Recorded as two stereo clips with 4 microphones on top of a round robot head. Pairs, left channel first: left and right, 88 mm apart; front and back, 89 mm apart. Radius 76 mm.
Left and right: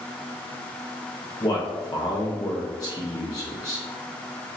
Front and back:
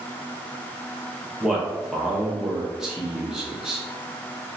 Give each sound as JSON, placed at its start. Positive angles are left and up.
{"t": 1.4, "sound": "a man speaking", "azimuth_deg": 100, "distance_m": 0.5}